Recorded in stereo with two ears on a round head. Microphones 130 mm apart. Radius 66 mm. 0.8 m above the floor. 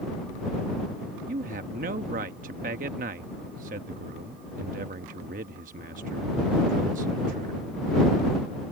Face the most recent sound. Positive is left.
turn(degrees=-60)  # may be behind; listen again after turning